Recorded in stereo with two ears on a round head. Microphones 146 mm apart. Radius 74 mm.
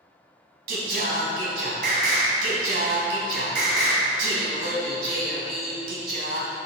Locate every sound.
0.7 s singing: 60° right (ahead or behind), 2 m